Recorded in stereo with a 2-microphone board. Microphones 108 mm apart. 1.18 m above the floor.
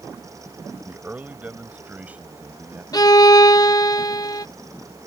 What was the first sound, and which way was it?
A man speaking, 15° right (ahead or behind).